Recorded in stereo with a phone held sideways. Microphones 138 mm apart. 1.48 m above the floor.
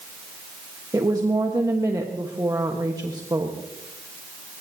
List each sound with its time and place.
0.9 s a woman speaking: 25° right (ahead or behind), 1.3 m